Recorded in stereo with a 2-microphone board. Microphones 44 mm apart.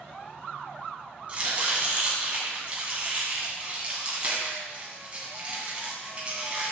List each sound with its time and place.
1.3 s chopping: 30° right (ahead or behind), 2.5 m